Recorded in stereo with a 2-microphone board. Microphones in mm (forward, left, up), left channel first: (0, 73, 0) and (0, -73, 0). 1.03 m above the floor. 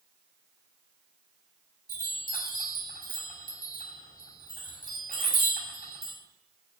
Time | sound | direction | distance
1.9 | a chime | 85° left | 5.5 m